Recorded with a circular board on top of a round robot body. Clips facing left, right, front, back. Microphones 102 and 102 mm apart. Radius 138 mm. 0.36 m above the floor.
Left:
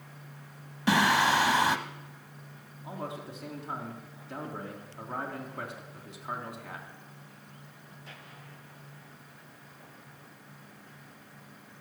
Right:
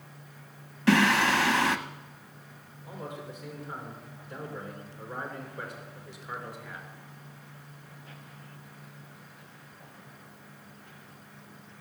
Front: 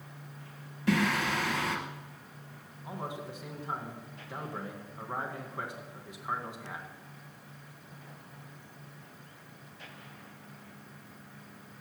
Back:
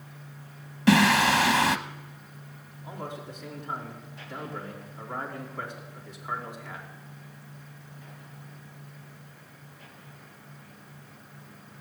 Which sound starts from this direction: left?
A man speaking, at 2.8 s.